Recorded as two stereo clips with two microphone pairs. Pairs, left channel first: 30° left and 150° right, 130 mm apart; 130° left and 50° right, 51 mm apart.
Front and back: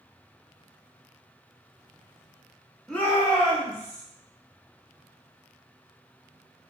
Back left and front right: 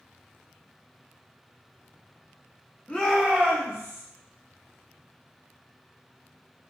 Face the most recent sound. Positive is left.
turn(degrees=-15)